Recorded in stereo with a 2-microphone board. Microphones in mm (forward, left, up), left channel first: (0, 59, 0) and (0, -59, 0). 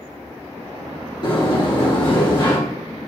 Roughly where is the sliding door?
Left.